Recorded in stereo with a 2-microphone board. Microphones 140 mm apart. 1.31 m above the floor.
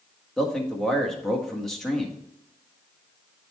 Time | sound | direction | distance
0.4 | a man speaking | 5° left (ahead or behind) | 1.6 m